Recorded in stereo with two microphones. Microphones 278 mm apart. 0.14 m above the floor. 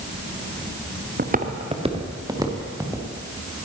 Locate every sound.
1.2 s footsteps: 35° right (ahead or behind), 1.1 m; by 3.1 s 10° right (ahead or behind), 2.5 m